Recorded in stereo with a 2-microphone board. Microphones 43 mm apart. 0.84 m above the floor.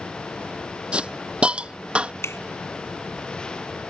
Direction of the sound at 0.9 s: 25° right (ahead or behind).